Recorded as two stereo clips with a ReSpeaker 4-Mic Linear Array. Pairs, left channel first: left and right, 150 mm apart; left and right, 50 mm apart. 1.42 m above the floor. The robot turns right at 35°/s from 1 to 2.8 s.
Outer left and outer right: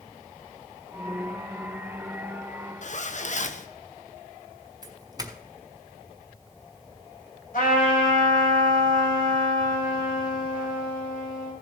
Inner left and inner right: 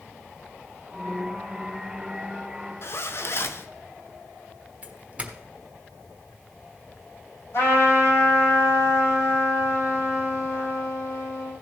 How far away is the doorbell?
About 1.2 m.